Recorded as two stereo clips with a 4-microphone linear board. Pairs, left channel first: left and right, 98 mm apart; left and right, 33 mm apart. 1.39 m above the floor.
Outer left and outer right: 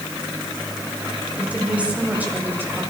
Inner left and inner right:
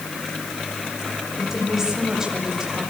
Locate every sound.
1.4 s a woman speaking: 10° right (ahead or behind), 7 m; by 2.8 s 20° right (ahead or behind), 7 m